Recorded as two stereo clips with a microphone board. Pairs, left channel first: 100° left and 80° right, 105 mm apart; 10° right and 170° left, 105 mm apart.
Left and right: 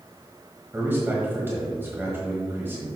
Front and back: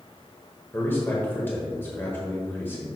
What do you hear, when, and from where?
0.7 s a man speaking: 50° right, 1.3 m